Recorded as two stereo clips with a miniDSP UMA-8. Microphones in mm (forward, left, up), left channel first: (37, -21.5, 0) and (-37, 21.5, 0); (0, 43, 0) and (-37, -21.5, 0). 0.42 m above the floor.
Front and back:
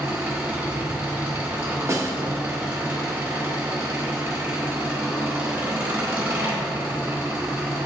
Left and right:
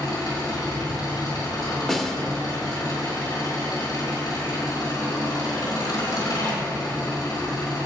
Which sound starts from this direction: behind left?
A snare drum, at 1.9 s.